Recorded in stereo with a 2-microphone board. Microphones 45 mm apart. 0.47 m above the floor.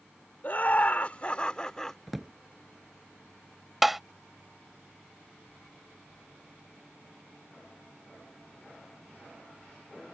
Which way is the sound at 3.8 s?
5° right (ahead or behind).